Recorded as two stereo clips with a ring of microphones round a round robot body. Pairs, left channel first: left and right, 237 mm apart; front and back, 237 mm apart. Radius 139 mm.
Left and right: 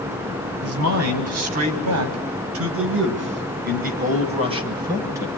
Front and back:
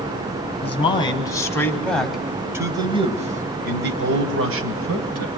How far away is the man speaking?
About 4 m.